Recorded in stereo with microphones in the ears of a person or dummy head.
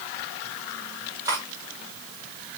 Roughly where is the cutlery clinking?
Centre.